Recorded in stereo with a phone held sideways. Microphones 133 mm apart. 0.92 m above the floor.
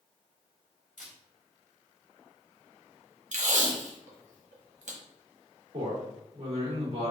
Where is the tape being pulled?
65° right (ahead or behind), 0.8 m.